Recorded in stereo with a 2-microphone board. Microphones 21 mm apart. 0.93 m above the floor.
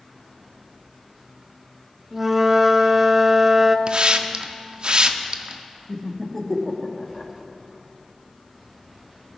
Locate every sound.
2.1 s a flute: 15° right (ahead or behind), 0.6 m
3.9 s a hiss: 50° right (ahead or behind), 0.5 m
5.9 s laughter: 15° left (ahead or behind), 1.2 m